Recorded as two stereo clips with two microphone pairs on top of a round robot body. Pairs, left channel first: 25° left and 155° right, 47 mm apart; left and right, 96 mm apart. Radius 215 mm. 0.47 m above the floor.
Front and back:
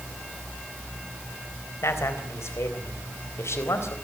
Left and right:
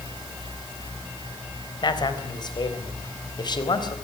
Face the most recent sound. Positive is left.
turn(degrees=50)